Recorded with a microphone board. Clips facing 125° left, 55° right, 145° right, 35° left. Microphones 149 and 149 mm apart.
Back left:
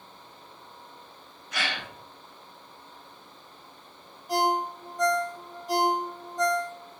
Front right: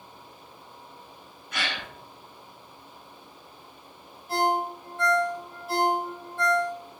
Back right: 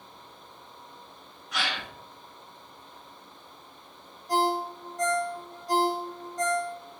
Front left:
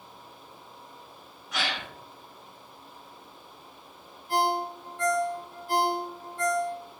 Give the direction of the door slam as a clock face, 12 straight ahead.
I don't hear a door slam.